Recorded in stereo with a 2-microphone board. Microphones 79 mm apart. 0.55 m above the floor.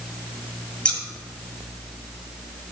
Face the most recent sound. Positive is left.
turn(degrees=10)  # may be behind; listen again after turning